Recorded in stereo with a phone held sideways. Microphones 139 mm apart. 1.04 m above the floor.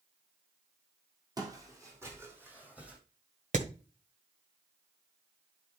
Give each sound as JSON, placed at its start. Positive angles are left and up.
{"t": 1.4, "sound": "footsteps", "side_deg": -25, "distance_m": 2.5}
{"t": 3.5, "sound": "hammering", "side_deg": -65, "distance_m": 1.5}